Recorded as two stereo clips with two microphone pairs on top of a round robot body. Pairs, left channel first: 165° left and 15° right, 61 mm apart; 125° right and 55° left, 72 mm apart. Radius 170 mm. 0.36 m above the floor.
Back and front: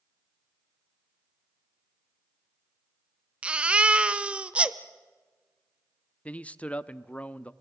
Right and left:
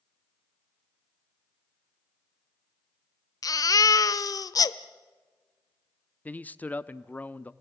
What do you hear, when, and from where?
3.4 s a baby crying: 85° right, 0.7 m
6.2 s a man speaking: 170° right, 0.9 m